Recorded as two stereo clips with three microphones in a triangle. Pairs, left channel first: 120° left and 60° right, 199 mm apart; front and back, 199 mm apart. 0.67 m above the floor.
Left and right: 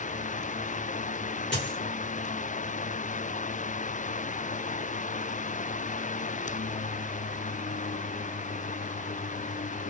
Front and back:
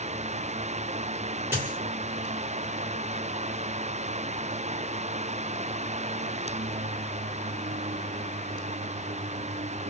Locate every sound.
1.5 s a dropped coin: 100° left, 1.8 m